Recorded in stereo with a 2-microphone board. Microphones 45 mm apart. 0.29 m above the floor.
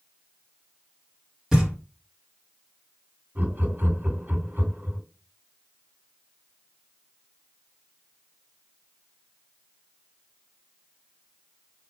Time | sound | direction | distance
1.5 | knocking | 10° right (ahead or behind) | 1.9 m
3.4 | laughter | 45° right (ahead or behind) | 1.7 m